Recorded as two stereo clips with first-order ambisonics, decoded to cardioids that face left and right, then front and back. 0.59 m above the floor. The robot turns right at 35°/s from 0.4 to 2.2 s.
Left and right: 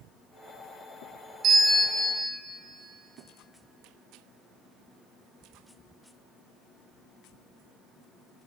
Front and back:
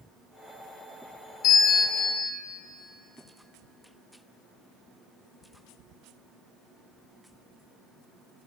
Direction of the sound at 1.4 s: 35° right.